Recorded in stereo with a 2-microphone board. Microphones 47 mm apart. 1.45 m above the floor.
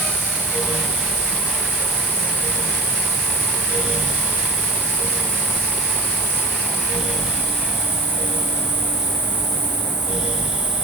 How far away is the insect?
About 3.5 m.